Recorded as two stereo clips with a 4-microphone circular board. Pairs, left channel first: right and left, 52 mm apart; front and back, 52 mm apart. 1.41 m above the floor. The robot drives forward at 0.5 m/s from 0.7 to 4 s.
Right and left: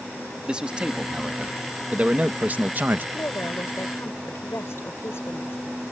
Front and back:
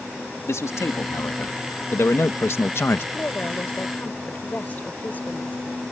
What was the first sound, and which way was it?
A man speaking, 20° left.